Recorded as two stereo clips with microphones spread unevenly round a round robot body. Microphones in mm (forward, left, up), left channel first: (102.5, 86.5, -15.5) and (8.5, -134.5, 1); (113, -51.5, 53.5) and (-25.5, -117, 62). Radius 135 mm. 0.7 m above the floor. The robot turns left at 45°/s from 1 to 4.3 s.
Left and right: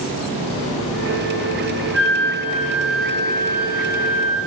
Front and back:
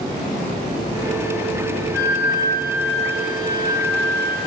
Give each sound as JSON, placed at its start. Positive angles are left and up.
{"t": 1.9, "sound": "a flute", "azimuth_deg": -155, "distance_m": 1.6}